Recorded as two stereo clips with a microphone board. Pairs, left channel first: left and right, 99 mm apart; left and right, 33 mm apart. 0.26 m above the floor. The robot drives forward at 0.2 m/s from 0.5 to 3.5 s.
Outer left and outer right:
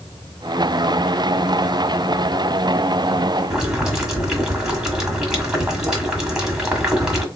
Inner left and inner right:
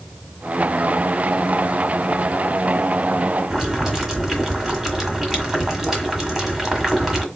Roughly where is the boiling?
Centre.